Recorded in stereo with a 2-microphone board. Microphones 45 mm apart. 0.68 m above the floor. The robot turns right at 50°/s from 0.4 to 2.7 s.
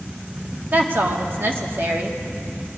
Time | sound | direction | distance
0.7 | a woman speaking | 125° right | 1.0 m